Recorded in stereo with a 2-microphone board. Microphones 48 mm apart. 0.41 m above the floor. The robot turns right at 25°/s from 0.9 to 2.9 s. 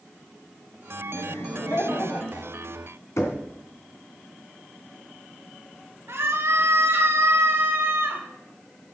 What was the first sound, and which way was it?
Laughter, 105° left.